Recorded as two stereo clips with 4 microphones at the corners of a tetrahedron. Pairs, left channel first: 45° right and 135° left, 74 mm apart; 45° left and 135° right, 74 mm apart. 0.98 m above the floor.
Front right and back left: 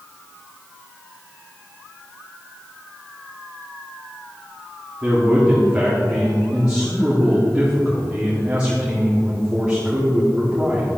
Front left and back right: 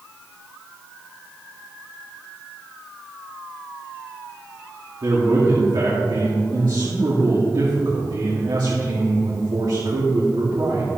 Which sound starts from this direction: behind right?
A man speaking, at 5.0 s.